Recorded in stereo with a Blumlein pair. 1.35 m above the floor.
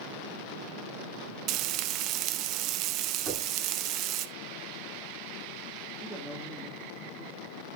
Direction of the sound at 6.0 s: 5° left.